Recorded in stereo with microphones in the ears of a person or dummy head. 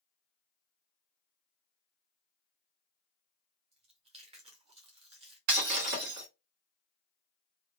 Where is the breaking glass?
55° right (ahead or behind), 1.9 m.